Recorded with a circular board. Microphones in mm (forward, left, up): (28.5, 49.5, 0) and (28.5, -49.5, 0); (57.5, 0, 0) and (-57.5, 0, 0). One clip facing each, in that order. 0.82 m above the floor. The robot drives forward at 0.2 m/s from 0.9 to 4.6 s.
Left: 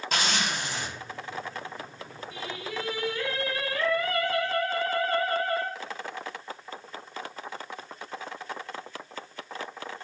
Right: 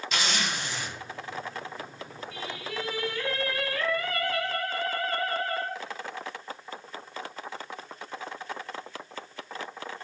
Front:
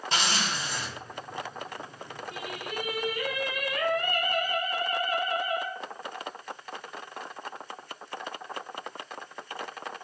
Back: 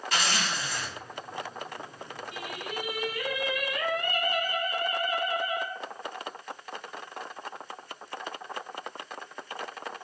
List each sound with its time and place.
0.1 s a zipper: 60° left, 1.0 m
2.3 s singing: 20° left, 1.5 m; by 5.7 s 30° left, 1.2 m